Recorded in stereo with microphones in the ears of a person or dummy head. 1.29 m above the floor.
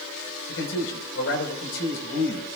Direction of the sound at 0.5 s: 70° left (ahead or behind).